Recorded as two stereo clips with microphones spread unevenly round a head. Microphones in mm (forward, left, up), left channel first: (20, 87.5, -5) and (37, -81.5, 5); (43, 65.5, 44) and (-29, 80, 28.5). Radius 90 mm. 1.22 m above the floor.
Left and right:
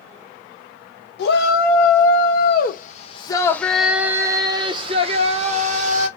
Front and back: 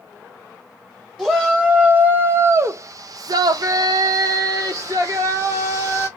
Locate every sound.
1.2 s a shout: 95° left, 1.2 m; by 6.1 s 135° right, 1.6 m